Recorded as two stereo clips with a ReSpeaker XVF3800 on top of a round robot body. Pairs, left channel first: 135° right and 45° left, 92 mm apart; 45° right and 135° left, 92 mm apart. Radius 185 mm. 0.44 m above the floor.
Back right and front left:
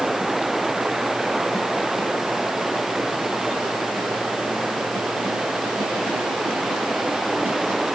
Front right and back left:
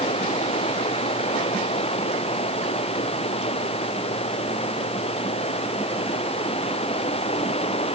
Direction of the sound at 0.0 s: 40° right.